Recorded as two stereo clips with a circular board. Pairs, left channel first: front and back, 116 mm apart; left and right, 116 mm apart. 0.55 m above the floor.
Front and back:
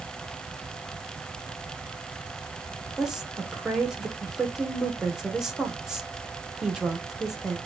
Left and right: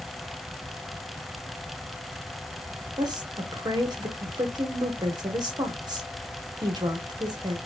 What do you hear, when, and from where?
3.0 s a woman speaking: 95° right, 0.9 m